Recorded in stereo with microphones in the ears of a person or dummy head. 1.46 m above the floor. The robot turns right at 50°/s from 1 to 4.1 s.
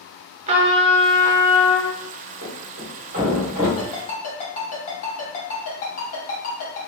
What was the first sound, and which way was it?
A trumpet, 30° right.